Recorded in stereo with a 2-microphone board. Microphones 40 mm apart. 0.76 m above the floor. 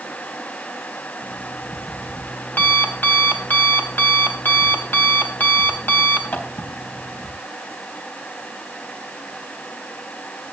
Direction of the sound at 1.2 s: 60° left (ahead or behind).